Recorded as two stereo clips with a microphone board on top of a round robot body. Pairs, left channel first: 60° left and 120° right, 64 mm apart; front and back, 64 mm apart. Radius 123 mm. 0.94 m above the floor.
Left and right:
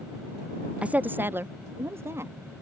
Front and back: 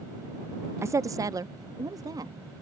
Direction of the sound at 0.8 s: 175° left.